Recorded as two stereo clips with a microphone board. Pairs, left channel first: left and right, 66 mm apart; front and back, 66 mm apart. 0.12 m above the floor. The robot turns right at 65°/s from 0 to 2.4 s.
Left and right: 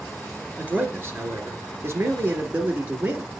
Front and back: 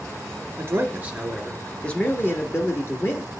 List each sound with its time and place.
0.6 s a man speaking: 150° right, 1.7 m; by 3.3 s 30° right, 1.7 m